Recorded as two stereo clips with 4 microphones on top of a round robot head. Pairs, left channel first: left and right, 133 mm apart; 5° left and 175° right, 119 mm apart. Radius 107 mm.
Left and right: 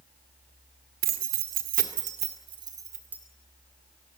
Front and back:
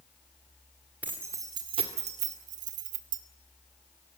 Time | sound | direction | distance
1.0 | keys jangling | 95° right | 2 m